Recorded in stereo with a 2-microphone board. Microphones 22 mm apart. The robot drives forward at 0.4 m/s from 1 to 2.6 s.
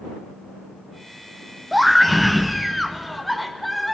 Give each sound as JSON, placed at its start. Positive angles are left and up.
{"t": 1.7, "sound": "a scream", "side_deg": 0, "distance_m": 0.6}